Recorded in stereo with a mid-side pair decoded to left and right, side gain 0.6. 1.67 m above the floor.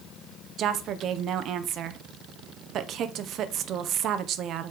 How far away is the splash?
I don't hear a splash.